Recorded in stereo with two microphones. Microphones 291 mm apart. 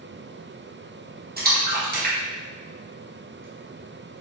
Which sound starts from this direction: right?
A splash, at 1.4 s.